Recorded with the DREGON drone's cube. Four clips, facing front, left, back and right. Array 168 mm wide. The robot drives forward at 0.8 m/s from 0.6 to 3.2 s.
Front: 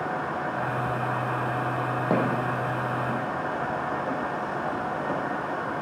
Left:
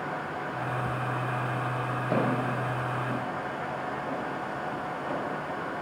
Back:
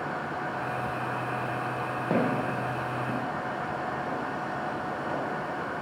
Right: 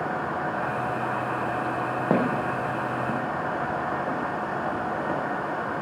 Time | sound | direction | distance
2.1 | footsteps | 80° right | 2.5 m